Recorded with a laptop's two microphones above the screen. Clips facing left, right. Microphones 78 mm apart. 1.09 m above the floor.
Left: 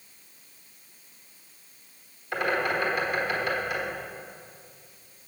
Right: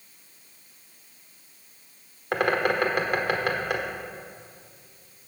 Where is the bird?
65° right (ahead or behind), 1.3 m.